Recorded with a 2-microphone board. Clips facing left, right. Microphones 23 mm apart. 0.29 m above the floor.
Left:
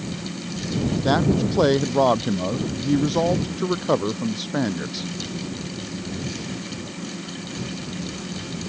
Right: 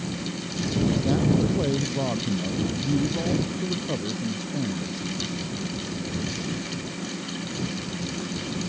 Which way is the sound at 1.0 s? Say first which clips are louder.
Left 6 dB; 55° left (ahead or behind).